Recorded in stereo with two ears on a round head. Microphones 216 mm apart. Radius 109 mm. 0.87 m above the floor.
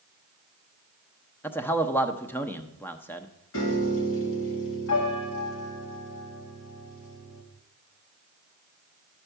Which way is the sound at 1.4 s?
10° left (ahead or behind).